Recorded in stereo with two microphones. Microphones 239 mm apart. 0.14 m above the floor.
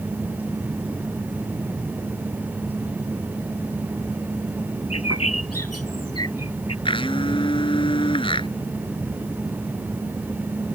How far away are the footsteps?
I don't hear footsteps.